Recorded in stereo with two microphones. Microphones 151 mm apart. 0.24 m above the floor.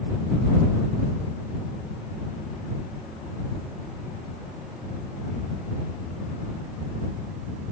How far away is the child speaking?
I don't hear a child speaking.